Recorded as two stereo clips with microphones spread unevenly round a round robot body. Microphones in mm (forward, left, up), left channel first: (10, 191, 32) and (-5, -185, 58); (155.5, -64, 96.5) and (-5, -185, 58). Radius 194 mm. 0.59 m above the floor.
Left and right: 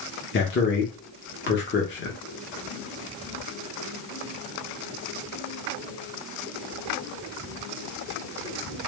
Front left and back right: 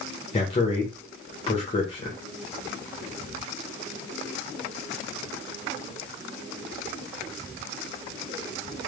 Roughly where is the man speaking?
Left.